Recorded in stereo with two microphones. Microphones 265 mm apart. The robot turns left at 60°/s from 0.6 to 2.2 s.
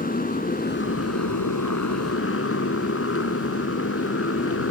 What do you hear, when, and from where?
0.0 s a motorcycle: 150° left; by 4.7 s 50° left